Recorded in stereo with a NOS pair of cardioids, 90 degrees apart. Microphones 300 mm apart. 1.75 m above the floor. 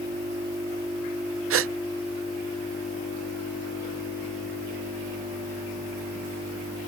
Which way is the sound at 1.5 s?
50° right.